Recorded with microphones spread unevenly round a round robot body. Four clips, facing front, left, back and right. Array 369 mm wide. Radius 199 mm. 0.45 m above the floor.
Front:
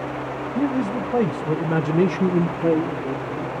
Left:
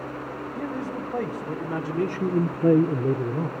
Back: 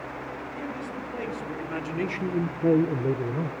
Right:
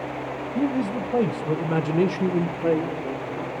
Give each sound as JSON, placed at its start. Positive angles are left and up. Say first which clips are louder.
{"t": 0.6, "sound": "a man speaking", "louder": "right 8 dB, front 15 dB", "azimuth_deg": -35, "distance_m": 3.0}